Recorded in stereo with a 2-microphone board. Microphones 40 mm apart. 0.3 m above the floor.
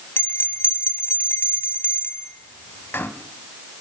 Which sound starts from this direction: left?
A bell, at 0.2 s.